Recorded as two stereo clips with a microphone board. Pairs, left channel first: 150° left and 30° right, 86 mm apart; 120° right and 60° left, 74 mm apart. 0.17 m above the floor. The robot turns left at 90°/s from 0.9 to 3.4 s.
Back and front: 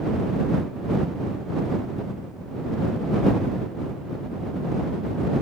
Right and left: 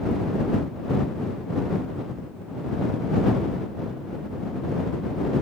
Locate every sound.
Only background noise.